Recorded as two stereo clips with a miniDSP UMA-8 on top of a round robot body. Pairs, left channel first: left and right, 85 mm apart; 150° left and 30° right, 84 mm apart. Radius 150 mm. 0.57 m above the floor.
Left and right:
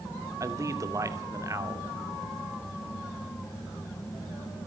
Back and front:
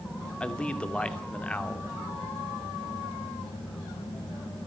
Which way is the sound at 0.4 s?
135° right.